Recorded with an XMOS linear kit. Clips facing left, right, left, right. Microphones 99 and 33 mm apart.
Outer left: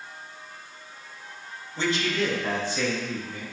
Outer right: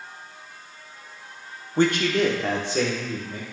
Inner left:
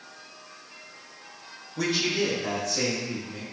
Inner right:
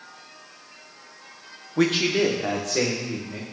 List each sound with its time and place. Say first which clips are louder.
1.8 s a man speaking: outer right 6 dB, inner right 5 dB; 50° right (ahead or behind), 0.8 m; by 3.4 s 75° right (ahead or behind), 2.5 m